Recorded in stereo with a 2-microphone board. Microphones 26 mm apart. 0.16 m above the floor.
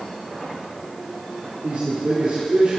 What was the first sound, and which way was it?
A man speaking, 70° right (ahead or behind).